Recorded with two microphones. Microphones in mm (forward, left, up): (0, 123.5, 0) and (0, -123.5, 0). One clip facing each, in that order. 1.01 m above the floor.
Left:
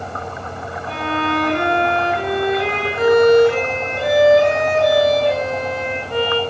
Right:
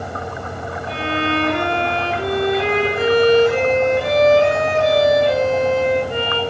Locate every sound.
0.9 s a violin: 45° left (ahead or behind), 3.5 m